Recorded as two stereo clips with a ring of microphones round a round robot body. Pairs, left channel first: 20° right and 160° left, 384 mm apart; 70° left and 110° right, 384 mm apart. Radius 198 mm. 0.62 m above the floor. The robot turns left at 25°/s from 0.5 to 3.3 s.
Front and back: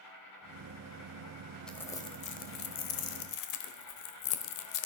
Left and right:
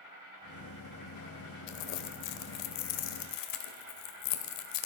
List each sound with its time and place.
0.0 s an insect: 15° left, 8 m; by 4.9 s 55° right, 8 m
1.7 s crumpling: 65° left, 1.1 m; by 4.9 s 25° left, 1.1 m